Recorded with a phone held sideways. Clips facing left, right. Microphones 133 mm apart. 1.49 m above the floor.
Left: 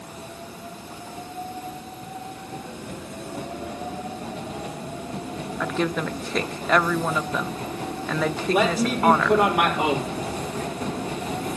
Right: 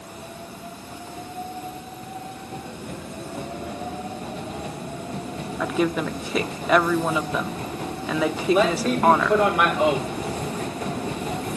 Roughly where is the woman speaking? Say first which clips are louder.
Right 3 dB; centre.